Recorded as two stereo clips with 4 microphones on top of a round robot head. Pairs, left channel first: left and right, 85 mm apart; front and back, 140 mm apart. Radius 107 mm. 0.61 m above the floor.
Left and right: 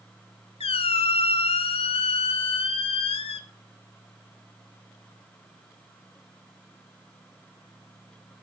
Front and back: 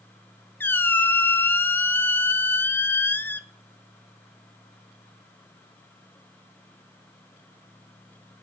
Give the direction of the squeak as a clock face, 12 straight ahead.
9 o'clock.